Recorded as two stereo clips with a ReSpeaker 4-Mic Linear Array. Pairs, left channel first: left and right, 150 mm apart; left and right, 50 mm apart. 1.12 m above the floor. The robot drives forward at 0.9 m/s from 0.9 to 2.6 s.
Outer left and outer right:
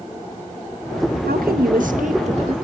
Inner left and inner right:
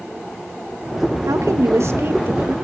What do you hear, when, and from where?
1.3 s a woman speaking: 85° right, 1.2 m; by 2.6 s 40° right (ahead or behind), 1.7 m